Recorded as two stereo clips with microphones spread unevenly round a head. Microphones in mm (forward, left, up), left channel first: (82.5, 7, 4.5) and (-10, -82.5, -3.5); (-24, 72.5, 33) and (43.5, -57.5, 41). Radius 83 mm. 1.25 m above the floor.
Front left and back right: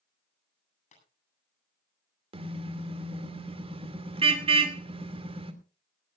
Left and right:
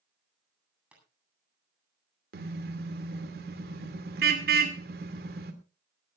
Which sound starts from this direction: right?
A car horn, at 2.3 s.